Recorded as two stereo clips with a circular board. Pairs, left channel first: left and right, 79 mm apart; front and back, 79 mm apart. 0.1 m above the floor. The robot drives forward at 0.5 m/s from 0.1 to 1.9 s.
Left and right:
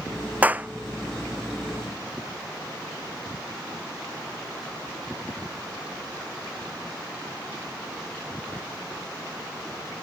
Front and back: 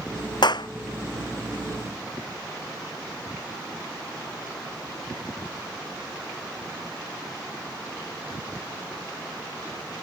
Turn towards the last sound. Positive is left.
turn(degrees=-25)